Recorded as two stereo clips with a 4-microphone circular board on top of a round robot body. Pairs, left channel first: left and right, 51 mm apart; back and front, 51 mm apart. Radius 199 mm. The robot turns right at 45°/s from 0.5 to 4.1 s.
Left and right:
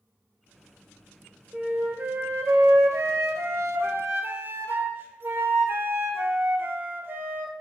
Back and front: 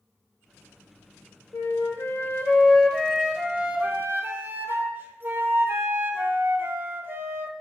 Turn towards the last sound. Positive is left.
turn(degrees=-50)